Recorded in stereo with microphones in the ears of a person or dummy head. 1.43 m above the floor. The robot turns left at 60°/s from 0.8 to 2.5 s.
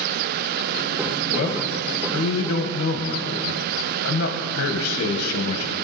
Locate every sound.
1.3 s a man speaking: 125° left, 1.4 m; by 5.7 s 55° left, 1.4 m